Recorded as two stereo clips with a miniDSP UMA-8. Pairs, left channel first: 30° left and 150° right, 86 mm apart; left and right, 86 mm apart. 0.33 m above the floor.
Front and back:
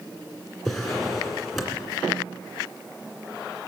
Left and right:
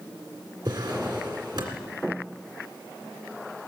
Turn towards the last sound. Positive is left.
turn(degrees=-55)